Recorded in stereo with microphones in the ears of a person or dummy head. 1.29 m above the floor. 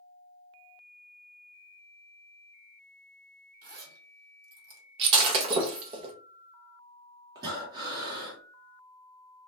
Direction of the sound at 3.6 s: 55° right (ahead or behind).